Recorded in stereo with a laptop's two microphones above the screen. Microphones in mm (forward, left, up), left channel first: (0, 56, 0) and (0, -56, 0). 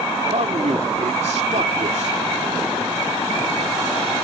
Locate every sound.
0.3 s a man speaking: 80° right